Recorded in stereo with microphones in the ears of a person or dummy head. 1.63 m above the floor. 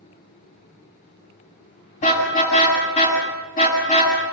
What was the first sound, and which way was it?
A car horn, 40° left (ahead or behind).